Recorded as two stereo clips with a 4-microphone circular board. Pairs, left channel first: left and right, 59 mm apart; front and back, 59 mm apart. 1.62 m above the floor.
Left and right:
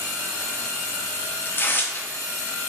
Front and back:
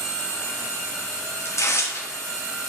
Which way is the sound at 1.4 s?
35° left.